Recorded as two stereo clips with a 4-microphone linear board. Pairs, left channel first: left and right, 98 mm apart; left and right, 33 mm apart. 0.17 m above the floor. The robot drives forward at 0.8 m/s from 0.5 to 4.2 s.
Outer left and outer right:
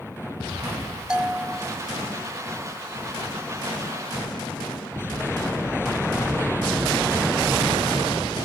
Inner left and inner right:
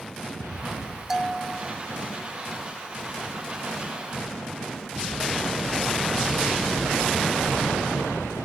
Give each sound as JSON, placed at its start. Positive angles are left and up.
{"t": 1.1, "sound": "a bell", "side_deg": -10}